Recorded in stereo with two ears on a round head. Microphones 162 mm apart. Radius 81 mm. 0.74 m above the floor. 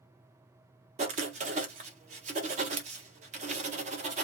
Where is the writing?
40° right (ahead or behind), 1.1 m.